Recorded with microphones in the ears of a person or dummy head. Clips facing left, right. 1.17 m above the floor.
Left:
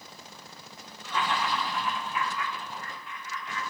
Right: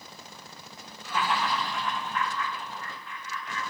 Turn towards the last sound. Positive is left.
turn(degrees=25)  # may be behind; listen again after turning